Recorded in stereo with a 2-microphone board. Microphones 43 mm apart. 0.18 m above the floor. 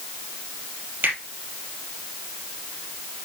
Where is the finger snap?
55° right (ahead or behind), 4 m.